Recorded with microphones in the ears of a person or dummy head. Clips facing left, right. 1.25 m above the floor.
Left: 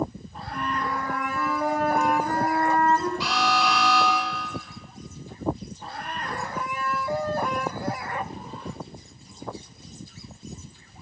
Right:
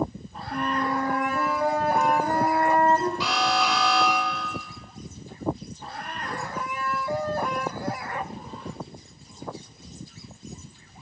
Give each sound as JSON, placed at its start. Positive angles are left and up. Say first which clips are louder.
{"t": 0.5, "sound": "a flute", "louder": "right 3 dB", "side_deg": -20, "distance_m": 0.9}
{"t": 3.2, "sound": "an alarm", "louder": "even", "side_deg": -60, "distance_m": 3.0}